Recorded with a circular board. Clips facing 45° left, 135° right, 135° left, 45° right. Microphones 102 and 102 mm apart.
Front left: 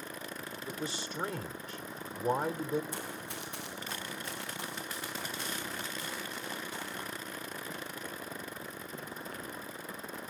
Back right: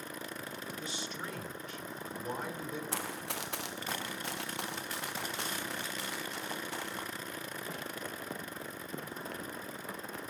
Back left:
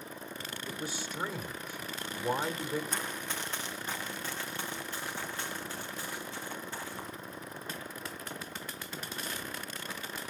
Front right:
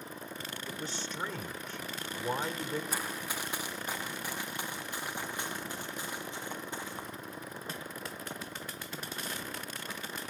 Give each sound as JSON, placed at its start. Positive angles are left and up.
{"t": 0.7, "sound": "a man speaking", "azimuth_deg": 60, "distance_m": 1.0}
{"t": 2.9, "sound": "running footsteps", "azimuth_deg": -130, "distance_m": 1.5}